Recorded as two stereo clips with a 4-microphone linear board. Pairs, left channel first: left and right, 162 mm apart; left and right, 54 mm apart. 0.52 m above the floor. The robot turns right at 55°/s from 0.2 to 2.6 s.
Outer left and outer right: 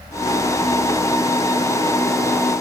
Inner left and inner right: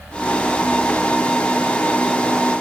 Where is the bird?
No bird in this recording.